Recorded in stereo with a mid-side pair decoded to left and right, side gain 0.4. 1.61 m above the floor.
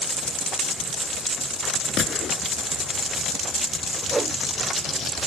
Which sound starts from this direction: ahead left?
A gunshot, at 2.0 s.